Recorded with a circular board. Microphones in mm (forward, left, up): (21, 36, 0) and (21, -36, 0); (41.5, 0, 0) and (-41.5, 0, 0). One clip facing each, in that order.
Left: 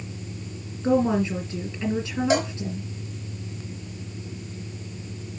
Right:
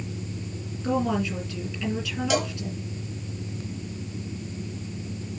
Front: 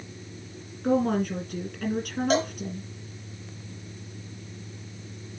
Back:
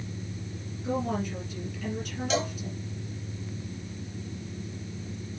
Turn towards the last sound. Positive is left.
turn(degrees=35)